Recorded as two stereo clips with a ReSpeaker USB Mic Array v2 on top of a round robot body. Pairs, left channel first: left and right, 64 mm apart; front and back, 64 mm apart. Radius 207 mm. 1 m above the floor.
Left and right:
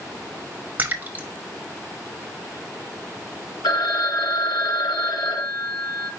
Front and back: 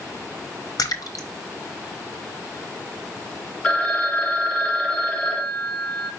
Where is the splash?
25° right, 0.6 m.